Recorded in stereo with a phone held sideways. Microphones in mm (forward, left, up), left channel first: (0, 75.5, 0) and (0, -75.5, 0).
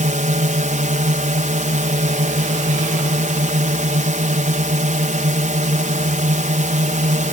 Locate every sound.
0.0 s a drone: 55° right (ahead or behind)